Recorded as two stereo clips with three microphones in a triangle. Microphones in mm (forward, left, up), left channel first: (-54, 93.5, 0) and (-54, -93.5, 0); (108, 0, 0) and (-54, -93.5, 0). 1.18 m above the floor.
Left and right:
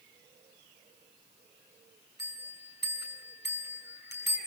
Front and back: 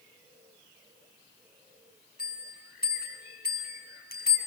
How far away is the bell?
About 6 m.